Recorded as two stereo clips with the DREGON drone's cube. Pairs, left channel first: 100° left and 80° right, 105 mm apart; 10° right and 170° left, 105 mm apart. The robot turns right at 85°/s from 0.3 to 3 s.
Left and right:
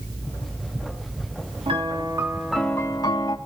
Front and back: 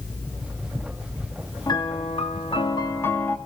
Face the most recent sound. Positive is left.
turn(degrees=50)